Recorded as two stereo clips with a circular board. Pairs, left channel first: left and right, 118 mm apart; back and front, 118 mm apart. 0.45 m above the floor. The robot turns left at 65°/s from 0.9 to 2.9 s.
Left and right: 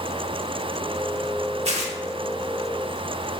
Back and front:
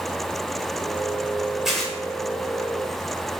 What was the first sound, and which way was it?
Tearing paper, 85° right.